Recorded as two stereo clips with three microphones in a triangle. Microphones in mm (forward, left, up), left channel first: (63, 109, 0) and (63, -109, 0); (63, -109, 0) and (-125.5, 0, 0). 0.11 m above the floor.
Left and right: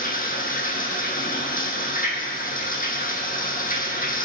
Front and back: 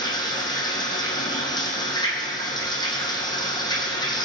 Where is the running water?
40° left, 2.5 m.